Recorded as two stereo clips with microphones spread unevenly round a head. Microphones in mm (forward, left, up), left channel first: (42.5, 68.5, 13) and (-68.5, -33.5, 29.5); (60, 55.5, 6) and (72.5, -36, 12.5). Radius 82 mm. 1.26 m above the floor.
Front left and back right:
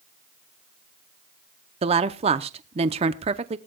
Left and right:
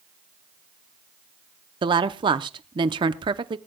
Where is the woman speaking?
95° right, 0.7 m.